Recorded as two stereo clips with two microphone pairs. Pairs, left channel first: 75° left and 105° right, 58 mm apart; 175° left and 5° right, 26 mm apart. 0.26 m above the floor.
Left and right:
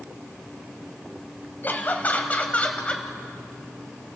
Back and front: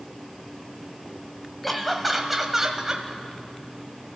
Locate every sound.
1.6 s laughter: 95° left, 1.6 m; by 3.1 s 30° left, 1.4 m